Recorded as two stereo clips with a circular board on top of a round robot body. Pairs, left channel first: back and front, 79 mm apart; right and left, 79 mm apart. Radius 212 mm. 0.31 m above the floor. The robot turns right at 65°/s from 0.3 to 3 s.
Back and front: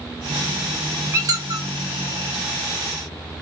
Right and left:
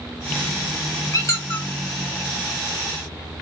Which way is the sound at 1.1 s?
50° right.